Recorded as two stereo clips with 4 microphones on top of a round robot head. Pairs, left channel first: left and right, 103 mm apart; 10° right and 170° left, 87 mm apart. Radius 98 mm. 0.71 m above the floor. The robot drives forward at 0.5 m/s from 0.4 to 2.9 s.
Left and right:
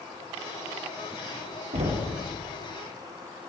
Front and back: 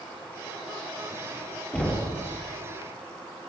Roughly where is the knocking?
Right.